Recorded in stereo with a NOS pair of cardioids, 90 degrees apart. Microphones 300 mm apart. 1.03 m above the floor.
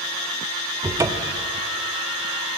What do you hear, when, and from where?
0.8 s a cupboard door: 10° right, 0.6 m